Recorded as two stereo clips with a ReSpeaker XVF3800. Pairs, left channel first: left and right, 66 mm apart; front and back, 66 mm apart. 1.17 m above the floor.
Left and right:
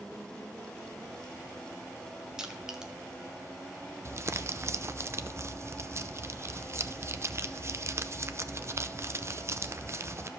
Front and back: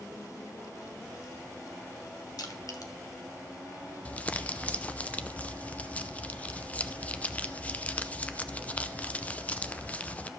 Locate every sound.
2.4 s crushing: 10° right, 1.6 m
4.0 s crumpling: 65° right, 0.6 m